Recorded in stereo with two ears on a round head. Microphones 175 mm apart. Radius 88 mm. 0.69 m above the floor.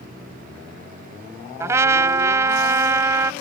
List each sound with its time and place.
1.6 s a trumpet: 15° right (ahead or behind)